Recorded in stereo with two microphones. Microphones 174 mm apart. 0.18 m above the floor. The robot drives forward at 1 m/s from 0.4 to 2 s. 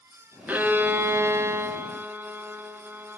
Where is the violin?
10° right (ahead or behind), 1.1 m.